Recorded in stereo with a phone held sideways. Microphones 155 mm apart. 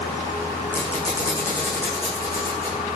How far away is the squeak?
About 8.5 m.